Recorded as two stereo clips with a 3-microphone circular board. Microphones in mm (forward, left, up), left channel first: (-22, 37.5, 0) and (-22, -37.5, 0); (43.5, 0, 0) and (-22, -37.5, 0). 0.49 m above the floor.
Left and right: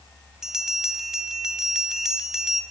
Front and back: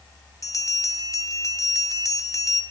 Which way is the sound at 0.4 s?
10° right.